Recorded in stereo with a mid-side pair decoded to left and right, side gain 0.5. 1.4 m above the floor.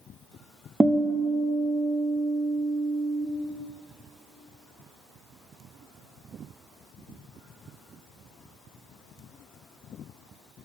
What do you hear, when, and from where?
0.8 s a guitar: 20° right, 0.5 m